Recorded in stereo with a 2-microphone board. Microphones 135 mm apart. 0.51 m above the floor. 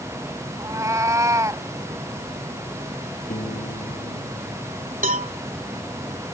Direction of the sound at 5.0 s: 80° right.